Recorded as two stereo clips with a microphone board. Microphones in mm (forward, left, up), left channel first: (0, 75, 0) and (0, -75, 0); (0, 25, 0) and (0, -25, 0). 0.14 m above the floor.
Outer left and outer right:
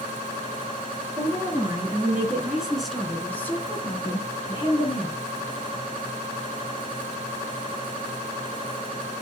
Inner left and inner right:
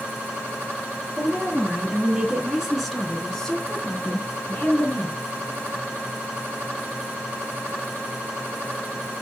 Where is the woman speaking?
25° right (ahead or behind), 2 m; by 5.2 s 45° left (ahead or behind), 1.7 m.